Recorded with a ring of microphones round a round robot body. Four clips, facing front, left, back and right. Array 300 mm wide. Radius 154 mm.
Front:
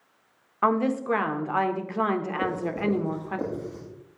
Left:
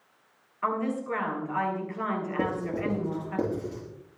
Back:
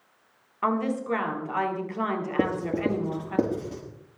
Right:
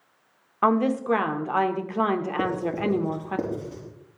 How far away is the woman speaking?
About 1.7 m.